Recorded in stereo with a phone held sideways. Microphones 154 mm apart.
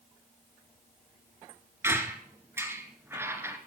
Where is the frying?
No frying in this recording.